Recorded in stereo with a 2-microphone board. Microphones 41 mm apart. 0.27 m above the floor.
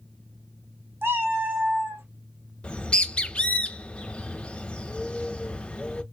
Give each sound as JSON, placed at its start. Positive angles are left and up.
{"t": 1.0, "sound": "a cat meowing", "side_deg": -70, "distance_m": 0.8}
{"t": 2.6, "sound": "a bird", "side_deg": 30, "distance_m": 0.5}